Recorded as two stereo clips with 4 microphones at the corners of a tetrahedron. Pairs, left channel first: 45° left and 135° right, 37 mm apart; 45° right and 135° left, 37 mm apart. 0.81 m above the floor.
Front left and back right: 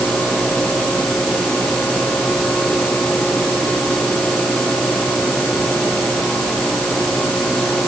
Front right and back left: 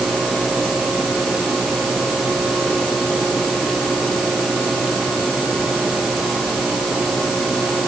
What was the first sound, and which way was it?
Only background noise.